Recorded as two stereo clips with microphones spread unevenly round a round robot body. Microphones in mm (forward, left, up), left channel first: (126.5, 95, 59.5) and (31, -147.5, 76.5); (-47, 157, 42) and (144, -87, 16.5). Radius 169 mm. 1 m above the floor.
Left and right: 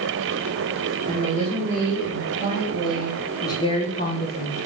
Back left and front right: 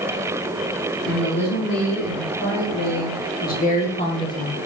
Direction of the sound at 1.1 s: 170° right.